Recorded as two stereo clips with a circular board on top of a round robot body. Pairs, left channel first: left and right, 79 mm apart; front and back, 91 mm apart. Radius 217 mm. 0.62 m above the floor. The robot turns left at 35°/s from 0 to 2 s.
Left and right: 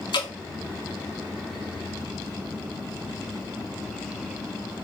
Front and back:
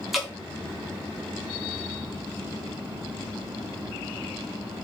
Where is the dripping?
95° left, 1.3 m; by 0.3 s 85° left, 1.3 m.